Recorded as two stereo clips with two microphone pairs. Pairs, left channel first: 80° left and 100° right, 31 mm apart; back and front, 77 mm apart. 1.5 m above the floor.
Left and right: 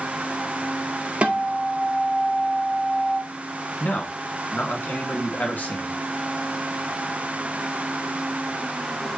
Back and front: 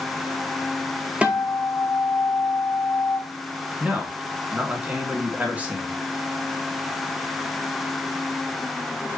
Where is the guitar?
65° right, 1.6 m.